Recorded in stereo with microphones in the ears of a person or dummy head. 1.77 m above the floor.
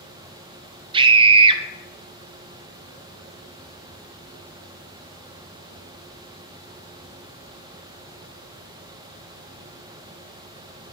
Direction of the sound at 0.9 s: 30° right (ahead or behind).